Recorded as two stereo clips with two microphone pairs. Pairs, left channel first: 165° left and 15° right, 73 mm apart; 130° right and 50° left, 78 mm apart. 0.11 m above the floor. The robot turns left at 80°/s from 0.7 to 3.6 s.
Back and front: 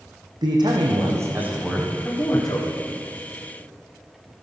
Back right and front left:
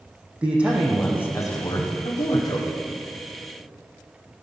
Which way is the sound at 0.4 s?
25° right.